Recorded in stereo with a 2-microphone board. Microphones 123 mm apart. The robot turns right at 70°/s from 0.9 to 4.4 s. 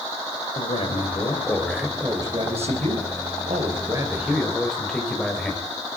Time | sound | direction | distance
0.6 | a man speaking | 120° left | 4.5 m